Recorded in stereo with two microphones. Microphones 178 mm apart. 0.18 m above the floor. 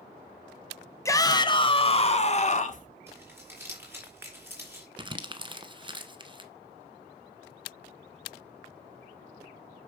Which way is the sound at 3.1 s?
15° right (ahead or behind).